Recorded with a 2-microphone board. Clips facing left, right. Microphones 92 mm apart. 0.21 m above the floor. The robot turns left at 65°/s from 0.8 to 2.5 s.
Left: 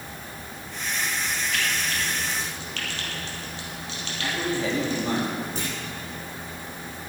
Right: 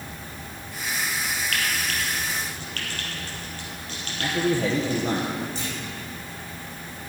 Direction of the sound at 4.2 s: 55° right (ahead or behind).